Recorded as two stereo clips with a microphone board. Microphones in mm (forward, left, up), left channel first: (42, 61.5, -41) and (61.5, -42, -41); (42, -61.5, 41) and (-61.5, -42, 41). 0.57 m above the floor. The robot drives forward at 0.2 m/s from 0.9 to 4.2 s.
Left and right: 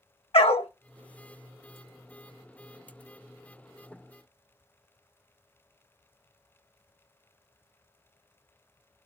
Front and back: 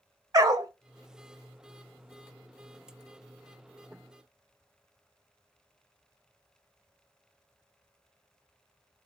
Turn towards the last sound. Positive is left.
turn(degrees=155)